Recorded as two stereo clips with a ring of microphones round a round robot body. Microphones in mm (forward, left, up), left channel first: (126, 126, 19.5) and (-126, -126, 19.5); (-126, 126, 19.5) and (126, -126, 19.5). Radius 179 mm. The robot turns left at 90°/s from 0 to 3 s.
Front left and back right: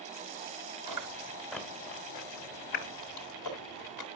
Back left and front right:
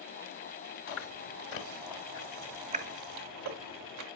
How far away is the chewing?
About 2 m.